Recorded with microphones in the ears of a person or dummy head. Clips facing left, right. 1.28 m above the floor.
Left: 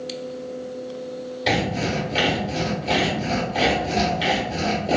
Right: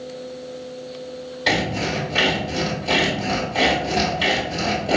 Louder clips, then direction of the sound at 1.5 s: Even; centre (ahead or behind).